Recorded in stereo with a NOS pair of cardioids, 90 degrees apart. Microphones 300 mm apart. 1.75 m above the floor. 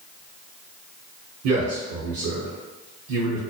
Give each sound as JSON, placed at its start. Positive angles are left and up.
{"t": 1.4, "sound": "a man speaking", "azimuth_deg": -60, "distance_m": 0.8}